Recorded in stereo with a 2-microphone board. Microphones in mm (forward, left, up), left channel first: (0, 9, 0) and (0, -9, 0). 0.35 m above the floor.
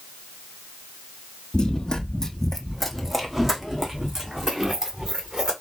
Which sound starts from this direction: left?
Running footsteps, at 1.5 s.